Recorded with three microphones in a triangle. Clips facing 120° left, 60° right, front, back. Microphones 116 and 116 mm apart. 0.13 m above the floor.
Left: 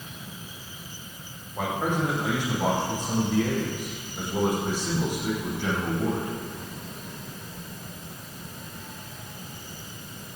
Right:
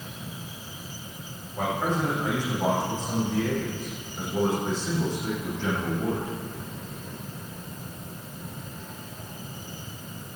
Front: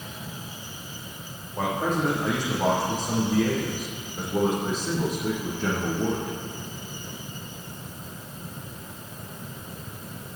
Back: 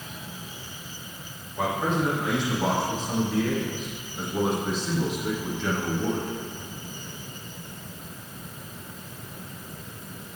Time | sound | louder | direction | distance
1.6 | a man speaking | even, even | 45° left | 6.5 m